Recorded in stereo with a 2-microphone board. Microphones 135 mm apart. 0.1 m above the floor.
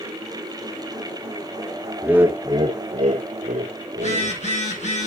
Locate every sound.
2.0 s laughter: 5° right (ahead or behind), 1.4 m; by 4.4 s 70° right (ahead or behind), 3.5 m
3.9 s a phone buzzing: 55° left (ahead or behind), 8.5 m